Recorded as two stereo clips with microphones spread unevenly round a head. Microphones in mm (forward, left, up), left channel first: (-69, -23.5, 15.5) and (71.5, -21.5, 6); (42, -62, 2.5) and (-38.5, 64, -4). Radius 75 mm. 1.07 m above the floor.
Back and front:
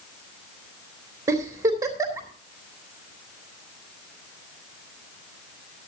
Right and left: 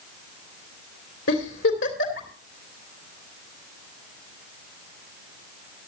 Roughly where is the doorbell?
I don't hear a doorbell.